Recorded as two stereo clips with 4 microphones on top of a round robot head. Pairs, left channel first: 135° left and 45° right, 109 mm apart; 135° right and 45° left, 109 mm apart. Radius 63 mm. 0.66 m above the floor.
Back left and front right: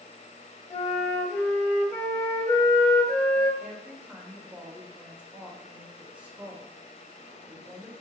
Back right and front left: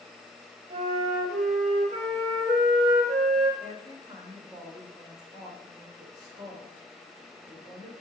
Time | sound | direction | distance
0.7 | a flute | 70° left | 0.9 m
3.6 | a woman speaking | 25° left | 1.1 m